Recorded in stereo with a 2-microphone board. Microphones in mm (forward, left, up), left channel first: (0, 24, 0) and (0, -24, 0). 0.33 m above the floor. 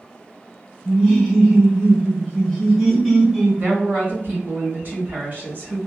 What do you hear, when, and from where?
0.8 s laughter: centre (ahead or behind), 1.5 m
3.6 s a woman speaking: 40° right (ahead or behind), 1.2 m